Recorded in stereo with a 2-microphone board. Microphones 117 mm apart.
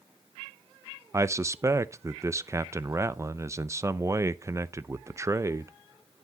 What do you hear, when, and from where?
1.1 s a man speaking: 25° right (ahead or behind), 0.5 m